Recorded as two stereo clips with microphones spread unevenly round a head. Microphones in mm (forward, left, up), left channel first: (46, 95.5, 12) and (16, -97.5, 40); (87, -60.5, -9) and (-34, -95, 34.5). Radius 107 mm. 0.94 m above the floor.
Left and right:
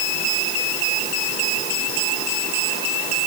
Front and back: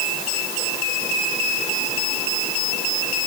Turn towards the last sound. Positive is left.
No sound to turn to.